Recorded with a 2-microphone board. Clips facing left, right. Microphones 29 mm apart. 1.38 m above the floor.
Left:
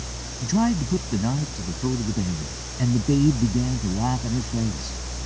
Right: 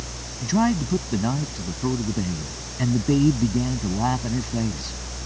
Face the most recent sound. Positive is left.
turn(degrees=-20)  # may be behind; listen again after turning